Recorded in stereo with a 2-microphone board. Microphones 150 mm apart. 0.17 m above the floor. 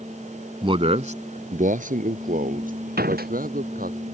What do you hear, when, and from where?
0.6 s a man speaking: 30° right (ahead or behind); by 4.0 s 65° right (ahead or behind)
3.0 s a door slam: 80° right